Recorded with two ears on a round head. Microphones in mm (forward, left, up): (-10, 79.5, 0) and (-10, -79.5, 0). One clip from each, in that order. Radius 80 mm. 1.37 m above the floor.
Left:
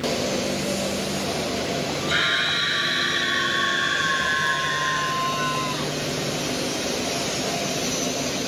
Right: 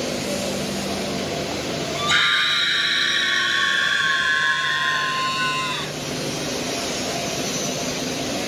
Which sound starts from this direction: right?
A scream, at 1.9 s.